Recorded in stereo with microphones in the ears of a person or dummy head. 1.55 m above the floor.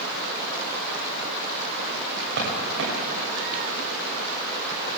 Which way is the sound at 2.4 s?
65° right (ahead or behind).